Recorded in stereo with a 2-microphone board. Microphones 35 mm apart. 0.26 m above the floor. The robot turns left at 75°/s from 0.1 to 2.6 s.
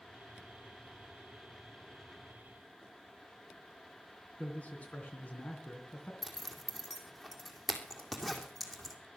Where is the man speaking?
45° left (ahead or behind), 3 m.